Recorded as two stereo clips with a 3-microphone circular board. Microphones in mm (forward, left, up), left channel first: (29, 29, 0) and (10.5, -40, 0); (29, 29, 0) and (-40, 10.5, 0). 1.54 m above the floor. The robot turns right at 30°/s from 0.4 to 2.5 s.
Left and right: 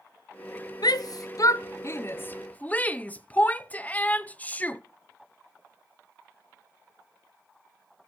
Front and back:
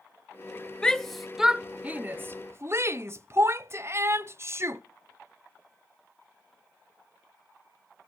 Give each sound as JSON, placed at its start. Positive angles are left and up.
{"t": 0.8, "sound": "a shout", "azimuth_deg": 95, "distance_m": 0.6}